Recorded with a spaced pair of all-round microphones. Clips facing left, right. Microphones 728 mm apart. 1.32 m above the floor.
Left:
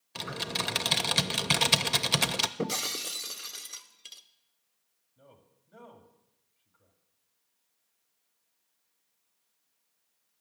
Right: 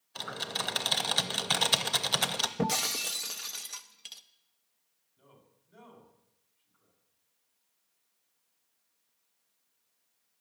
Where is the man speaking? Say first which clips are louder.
Left 2 dB; 75° left (ahead or behind), 2.5 m.